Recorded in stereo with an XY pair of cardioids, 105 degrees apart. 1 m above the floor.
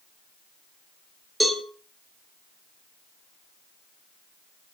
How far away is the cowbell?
About 3 m.